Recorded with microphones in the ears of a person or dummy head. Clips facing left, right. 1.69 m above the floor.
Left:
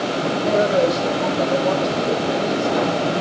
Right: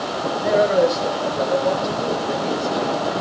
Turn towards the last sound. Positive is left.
turn(degrees=10)  # may be behind; listen again after turning